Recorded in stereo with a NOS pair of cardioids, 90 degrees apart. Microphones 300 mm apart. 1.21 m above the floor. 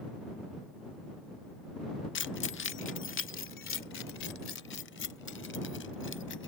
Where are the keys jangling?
40° left.